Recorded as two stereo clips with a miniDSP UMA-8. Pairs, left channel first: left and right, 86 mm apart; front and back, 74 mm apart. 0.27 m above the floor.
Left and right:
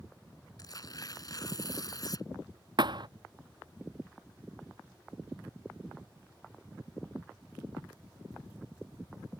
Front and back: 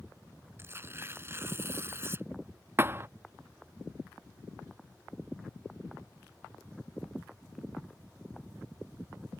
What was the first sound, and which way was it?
Tearing paper, 130° left.